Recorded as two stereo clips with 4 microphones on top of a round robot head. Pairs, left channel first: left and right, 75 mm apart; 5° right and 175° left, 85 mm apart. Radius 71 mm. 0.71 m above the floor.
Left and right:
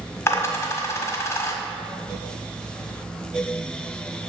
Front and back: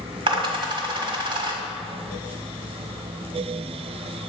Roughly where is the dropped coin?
Behind left.